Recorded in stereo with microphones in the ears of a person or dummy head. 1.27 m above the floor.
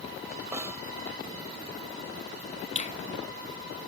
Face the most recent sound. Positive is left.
turn(degrees=40)  # may be behind; listen again after turning